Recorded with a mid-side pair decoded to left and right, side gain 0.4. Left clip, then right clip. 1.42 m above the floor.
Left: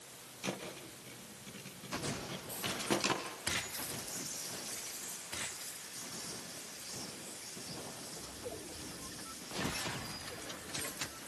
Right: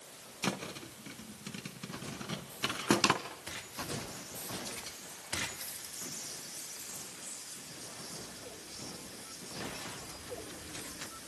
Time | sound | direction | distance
0.4 | a thud | 70° right | 4 m